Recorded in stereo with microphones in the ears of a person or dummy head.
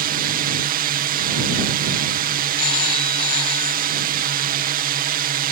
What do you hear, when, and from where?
0.0 s a drone: 45° right (ahead or behind)
2.6 s a phone ringing: 25° left (ahead or behind)